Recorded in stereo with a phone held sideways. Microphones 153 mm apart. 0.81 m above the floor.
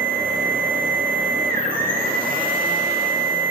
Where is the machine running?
70° right (ahead or behind), 3.5 m.